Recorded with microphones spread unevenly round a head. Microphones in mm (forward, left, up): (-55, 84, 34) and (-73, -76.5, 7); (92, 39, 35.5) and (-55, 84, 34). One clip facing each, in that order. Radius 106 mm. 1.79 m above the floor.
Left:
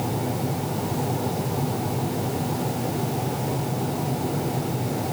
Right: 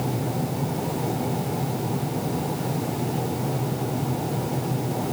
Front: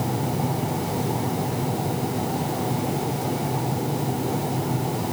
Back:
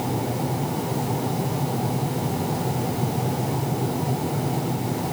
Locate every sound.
Only background noise.